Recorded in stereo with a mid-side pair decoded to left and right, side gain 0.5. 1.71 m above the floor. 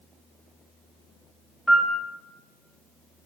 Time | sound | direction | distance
1.7 | a piano | 5° left | 0.6 m